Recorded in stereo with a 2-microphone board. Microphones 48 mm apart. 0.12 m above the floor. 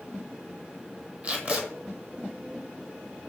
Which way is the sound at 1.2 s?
30° right (ahead or behind).